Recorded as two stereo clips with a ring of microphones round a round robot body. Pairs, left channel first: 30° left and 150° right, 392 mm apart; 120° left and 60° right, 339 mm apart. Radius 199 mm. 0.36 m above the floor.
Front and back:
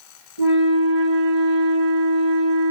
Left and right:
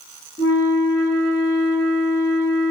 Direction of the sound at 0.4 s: 135° right.